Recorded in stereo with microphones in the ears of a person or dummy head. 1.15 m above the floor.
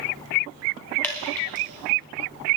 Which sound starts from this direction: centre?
Dripping, at 1.0 s.